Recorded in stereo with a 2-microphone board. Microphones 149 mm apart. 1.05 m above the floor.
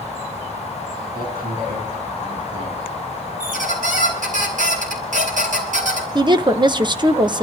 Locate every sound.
1.1 s a man speaking: 80° right, 9 m
3.4 s a squeak: 65° right (ahead or behind), 3.5 m
6.2 s a woman speaking: 30° right (ahead or behind), 0.8 m